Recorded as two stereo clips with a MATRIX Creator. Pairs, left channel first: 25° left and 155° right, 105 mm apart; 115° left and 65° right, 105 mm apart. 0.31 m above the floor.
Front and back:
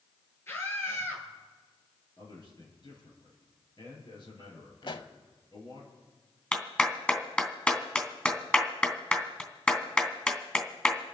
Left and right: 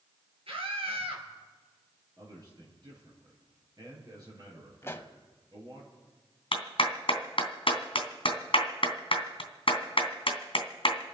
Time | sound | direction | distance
0.5 | a scream | 45° right | 5 m
2.2 | a man speaking | 20° right | 6.5 m
4.8 | a pop | 50° left | 0.8 m
6.5 | a clap | 95° left | 2.5 m